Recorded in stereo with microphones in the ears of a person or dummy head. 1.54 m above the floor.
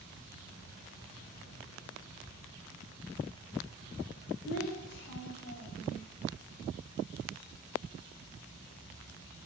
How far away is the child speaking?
About 3.5 m.